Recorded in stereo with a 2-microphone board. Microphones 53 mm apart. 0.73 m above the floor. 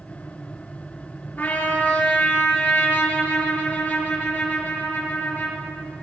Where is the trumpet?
40° left (ahead or behind), 2.5 m.